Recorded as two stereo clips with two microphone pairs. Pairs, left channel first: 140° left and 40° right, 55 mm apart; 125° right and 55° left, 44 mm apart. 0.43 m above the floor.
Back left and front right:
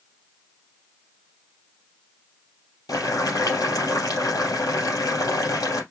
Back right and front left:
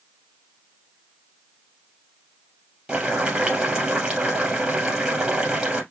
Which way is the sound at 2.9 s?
125° left.